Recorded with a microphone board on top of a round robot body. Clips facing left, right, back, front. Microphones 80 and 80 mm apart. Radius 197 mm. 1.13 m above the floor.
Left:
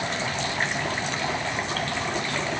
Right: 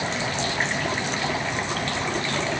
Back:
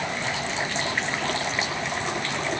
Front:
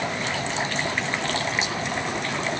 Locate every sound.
Only background noise.